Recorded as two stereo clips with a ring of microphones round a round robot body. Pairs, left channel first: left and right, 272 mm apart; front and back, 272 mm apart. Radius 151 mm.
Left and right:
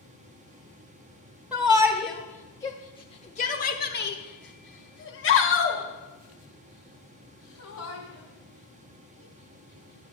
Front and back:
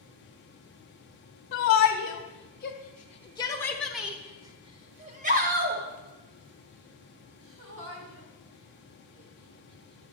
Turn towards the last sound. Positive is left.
turn(degrees=140)